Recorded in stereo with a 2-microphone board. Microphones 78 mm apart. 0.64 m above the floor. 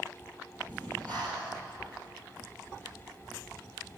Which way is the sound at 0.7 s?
20° left (ahead or behind).